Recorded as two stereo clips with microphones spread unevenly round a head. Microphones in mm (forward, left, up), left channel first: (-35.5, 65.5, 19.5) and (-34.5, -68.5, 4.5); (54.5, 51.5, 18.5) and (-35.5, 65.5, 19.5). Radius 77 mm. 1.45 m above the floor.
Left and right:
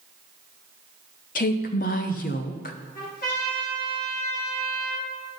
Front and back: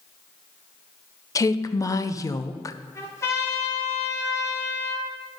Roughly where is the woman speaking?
Ahead left.